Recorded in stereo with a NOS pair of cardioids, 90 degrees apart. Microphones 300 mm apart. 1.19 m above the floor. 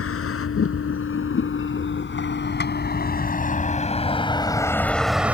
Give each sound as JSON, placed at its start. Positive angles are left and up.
{"t": 0.0, "sound": "a vehicle", "azimuth_deg": 50}